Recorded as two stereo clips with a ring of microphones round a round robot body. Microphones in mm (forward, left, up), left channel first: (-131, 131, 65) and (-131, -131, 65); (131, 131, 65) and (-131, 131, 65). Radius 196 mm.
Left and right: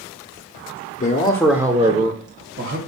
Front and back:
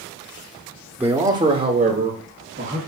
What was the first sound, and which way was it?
A man speaking, 100° left.